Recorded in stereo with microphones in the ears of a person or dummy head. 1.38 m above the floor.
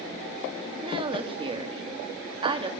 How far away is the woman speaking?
About 2.5 m.